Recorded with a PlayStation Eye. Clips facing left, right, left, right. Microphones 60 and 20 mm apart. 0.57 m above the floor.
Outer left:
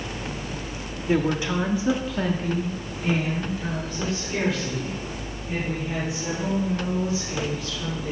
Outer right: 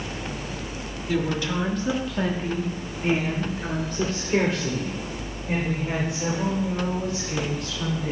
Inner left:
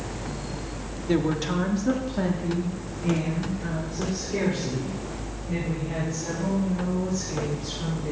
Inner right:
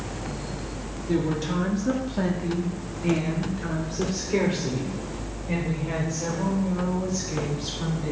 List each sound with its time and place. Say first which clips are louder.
1.1 s a woman speaking: outer left 3 dB, inner left 1 dB; 35° left (ahead or behind), 1.1 m; by 8.1 s 55° right (ahead or behind), 4 m